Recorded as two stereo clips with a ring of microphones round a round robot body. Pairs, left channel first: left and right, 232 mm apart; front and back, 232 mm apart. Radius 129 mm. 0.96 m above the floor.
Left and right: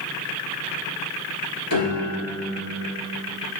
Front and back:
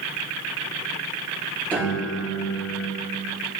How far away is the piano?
About 2.5 m.